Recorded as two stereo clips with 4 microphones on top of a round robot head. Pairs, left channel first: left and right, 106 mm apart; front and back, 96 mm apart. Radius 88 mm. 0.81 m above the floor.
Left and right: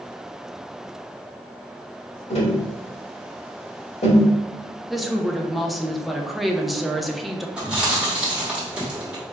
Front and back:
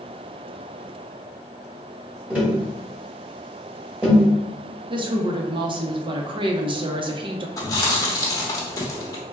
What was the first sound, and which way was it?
Tapping, 100° left.